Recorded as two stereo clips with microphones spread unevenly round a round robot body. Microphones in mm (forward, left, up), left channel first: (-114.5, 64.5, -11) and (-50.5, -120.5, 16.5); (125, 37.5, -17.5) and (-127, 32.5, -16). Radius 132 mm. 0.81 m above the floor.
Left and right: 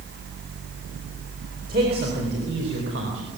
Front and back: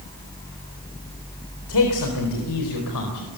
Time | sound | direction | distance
1.7 | a man speaking | 10° right | 3.5 m